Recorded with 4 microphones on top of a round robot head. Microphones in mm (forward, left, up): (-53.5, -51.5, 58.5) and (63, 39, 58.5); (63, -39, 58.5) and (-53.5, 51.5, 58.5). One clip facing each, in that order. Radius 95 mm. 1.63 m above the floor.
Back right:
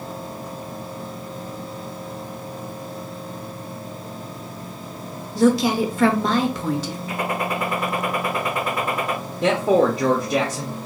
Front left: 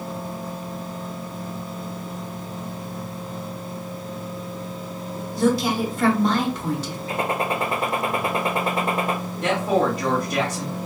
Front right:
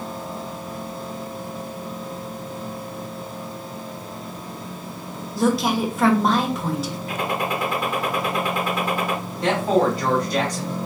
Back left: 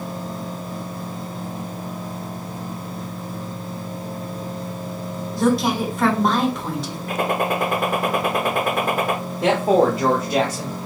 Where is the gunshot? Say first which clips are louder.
Front left 2 dB, back left 5 dB; 100° left, 0.6 m.